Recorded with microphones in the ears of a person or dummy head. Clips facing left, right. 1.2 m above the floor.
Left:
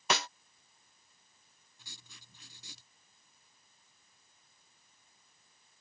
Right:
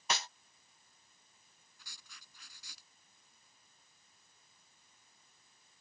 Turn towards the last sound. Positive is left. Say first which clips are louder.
# left 4 dB
turn(degrees=25)  # may be behind; listen again after turning